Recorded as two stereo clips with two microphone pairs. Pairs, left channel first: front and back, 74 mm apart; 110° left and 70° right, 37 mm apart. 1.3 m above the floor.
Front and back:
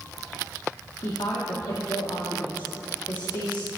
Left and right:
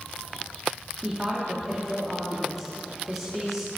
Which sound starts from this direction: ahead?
A woman speaking, at 1.0 s.